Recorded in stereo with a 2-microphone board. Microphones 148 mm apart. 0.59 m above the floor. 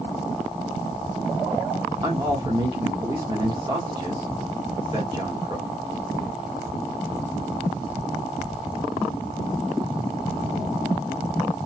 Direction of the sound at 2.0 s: 30° right (ahead or behind).